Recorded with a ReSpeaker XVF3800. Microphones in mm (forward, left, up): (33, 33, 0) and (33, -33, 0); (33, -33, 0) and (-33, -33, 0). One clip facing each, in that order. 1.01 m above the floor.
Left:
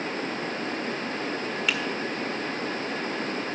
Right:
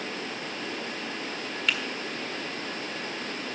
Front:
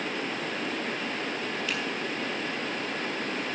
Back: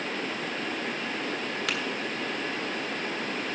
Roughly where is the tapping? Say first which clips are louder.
Even, back 3 dB; behind.